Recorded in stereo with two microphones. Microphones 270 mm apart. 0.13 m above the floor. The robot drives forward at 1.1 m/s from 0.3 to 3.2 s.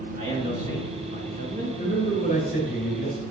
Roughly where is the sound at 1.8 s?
Left.